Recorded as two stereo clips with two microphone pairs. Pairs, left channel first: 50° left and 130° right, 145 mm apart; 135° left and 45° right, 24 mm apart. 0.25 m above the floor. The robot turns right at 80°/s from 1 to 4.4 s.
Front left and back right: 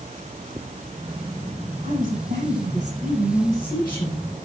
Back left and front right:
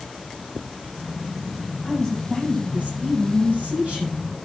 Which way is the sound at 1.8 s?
170° right.